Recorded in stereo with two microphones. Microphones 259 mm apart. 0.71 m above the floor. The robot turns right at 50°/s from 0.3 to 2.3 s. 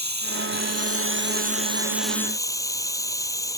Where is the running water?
90° right; by 3.6 s 10° left.